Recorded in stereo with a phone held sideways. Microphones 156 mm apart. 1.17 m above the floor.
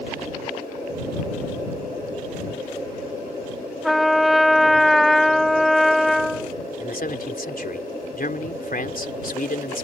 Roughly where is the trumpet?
Centre.